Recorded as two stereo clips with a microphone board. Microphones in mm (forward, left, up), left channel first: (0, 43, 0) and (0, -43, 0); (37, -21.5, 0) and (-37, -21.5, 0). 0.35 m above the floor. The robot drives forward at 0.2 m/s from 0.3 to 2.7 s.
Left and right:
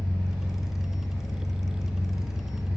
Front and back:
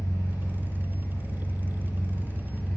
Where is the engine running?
20° right, 1.1 m; by 2.8 s 50° right, 0.8 m.